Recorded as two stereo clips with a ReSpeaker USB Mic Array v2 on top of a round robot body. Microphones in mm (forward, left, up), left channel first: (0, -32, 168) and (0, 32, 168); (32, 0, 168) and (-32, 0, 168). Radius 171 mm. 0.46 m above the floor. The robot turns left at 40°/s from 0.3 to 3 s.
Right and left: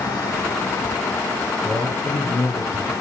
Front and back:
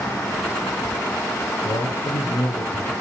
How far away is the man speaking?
About 8.5 m.